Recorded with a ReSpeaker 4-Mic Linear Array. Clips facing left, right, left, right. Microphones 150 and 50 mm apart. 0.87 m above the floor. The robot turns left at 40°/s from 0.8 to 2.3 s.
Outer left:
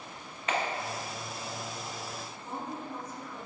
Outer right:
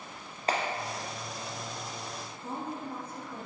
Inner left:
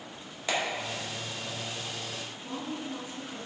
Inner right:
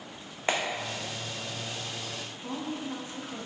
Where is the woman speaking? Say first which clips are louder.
Outer right 2 dB, inner right 2 dB; 55° right (ahead or behind), 1.6 m.